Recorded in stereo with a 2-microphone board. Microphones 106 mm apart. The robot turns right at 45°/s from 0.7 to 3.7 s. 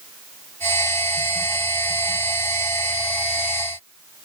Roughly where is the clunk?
I don't hear a clunk.